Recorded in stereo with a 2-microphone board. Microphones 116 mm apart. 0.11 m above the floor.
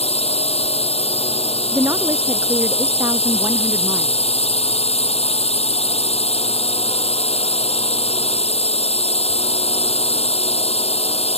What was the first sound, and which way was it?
A drone, 60° left (ahead or behind).